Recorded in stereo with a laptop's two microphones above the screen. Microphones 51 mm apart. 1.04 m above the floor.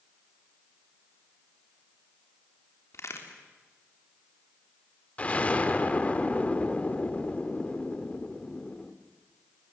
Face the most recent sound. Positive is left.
turn(degrees=25)  # may be behind; listen again after turning